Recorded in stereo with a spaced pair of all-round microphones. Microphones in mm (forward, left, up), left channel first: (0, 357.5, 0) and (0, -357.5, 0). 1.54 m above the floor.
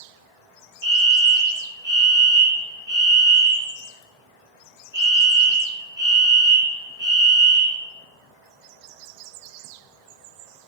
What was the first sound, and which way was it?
A fire alarm, 35° right (ahead or behind).